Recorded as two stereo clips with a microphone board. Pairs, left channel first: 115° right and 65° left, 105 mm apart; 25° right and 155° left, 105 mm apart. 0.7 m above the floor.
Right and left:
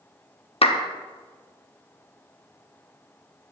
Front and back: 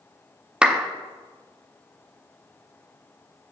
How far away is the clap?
About 0.5 m.